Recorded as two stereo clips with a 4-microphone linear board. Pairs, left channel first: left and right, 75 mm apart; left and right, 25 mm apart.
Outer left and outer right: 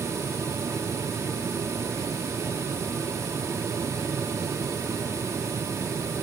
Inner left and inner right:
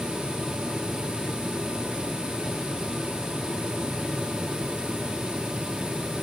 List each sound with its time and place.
Only background noise.